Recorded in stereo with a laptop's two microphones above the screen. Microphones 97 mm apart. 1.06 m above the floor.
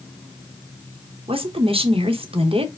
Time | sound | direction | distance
1.3 | a woman speaking | 70° right (ahead or behind) | 0.8 m